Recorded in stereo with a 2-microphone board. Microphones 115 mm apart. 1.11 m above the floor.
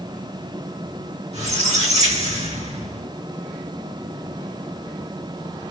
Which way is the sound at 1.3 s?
75° right (ahead or behind).